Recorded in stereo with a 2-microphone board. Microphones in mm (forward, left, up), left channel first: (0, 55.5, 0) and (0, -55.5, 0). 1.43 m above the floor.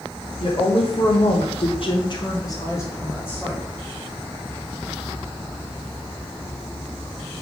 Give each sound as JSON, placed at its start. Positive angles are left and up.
{"t": 0.4, "sound": "a woman speaking", "side_deg": 45, "distance_m": 0.9}